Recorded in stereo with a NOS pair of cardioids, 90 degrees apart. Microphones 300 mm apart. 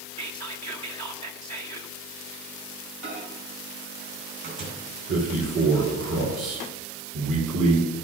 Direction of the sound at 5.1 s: 70° right.